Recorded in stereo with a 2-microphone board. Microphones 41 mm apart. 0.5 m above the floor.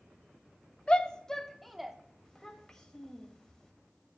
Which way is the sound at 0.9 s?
25° left (ahead or behind).